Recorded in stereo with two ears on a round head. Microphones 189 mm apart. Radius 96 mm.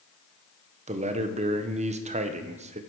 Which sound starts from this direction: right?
A man speaking, at 0.9 s.